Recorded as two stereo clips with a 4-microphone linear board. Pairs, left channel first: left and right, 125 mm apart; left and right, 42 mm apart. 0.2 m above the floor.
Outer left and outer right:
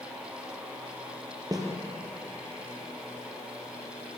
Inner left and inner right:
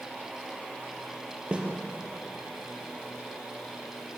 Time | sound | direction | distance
1.5 | a snare drum | 30° right (ahead or behind) | 3.5 m